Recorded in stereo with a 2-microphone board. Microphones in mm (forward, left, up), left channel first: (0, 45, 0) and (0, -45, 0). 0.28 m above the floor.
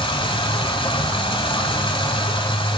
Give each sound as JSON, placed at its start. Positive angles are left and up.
{"t": 0.0, "sound": "running water", "side_deg": 70, "distance_m": 1.0}